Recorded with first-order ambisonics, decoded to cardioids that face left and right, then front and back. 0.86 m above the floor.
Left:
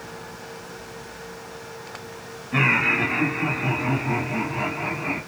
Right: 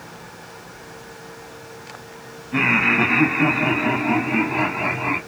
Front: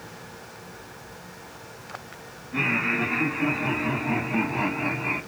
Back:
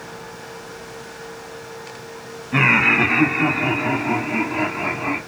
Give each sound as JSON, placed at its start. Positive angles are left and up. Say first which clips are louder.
{"t": 2.5, "sound": "laughter", "louder": "right 2 dB, back 9 dB", "azimuth_deg": 175, "distance_m": 0.8}